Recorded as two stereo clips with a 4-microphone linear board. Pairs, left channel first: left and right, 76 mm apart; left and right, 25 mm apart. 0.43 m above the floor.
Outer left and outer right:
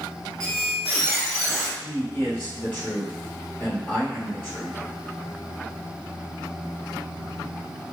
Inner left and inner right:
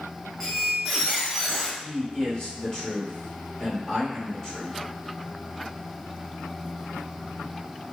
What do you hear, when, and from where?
0.4 s a squeak: centre (ahead or behind), 1.3 m
1.8 s a man speaking: 30° left (ahead or behind), 0.9 m